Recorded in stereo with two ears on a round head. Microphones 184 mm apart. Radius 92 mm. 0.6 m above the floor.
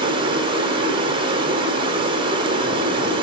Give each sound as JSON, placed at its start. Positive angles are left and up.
{"t": 0.0, "sound": "running water", "side_deg": -25, "distance_m": 1.5}